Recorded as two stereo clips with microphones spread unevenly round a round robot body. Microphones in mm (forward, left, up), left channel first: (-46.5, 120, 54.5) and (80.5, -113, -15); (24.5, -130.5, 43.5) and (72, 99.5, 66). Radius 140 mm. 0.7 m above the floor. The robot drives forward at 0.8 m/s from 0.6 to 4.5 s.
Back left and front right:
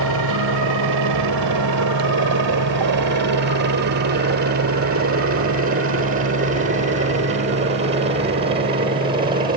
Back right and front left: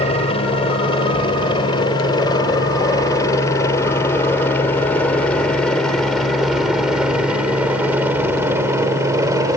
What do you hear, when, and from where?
0.0 s a helicopter: 40° right; by 9.6 s 5° left